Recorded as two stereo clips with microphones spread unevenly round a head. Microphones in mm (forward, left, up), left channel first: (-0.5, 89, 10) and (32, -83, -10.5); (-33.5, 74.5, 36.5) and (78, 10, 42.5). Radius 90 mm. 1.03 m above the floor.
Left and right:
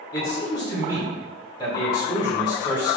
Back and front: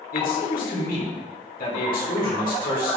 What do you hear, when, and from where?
0.1 s a man speaking: 170° left, 3.5 m